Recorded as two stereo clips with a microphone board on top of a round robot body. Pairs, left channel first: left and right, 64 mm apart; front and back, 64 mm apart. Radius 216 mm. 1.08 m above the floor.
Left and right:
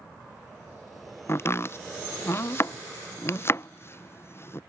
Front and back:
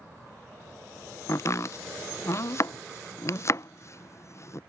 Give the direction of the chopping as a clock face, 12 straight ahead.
11 o'clock.